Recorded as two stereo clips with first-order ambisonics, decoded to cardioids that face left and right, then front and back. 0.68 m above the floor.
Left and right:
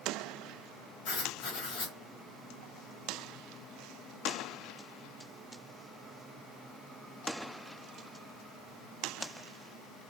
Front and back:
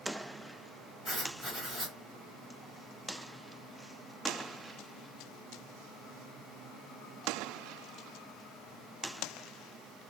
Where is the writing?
90° left, 2.5 m.